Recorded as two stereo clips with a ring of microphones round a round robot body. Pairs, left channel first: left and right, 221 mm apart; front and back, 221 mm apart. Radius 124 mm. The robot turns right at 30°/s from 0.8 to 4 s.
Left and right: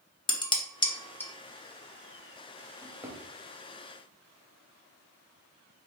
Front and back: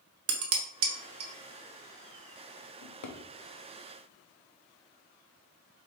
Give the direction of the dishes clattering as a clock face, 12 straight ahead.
7 o'clock.